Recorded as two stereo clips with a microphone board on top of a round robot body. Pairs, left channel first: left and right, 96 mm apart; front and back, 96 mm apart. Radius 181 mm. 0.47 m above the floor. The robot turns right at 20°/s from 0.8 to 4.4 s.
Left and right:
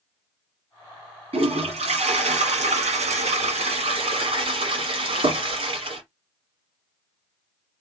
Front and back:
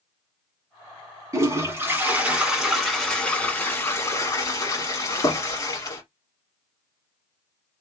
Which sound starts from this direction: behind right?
A toilet flushing, at 1.3 s.